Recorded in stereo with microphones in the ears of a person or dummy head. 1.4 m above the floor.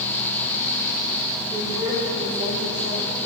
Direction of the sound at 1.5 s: 25° right (ahead or behind).